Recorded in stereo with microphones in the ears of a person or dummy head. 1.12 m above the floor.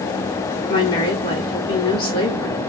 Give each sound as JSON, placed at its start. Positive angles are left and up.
{"t": 0.7, "sound": "a woman speaking", "side_deg": 30, "distance_m": 2.5}